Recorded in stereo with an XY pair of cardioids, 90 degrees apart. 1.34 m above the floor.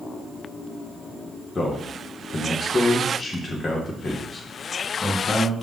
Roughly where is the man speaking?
Ahead left.